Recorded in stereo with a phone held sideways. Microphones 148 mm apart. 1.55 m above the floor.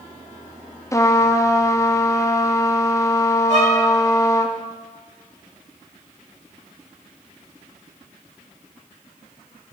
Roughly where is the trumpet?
Left.